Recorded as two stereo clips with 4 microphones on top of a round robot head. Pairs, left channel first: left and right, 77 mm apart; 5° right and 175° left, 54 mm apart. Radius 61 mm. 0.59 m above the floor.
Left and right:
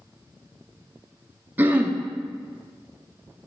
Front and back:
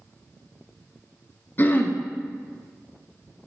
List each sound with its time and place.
1.6 s throat clearing: 35° right, 0.6 m